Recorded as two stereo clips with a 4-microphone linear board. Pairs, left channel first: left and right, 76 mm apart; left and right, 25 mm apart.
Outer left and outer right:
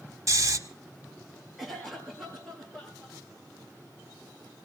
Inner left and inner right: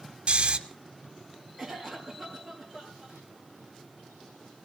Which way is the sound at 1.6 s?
Centre (ahead or behind).